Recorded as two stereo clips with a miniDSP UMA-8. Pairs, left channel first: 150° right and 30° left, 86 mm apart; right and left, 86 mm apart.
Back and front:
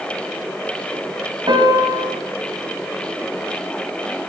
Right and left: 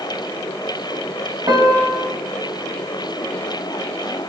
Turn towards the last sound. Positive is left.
turn(degrees=55)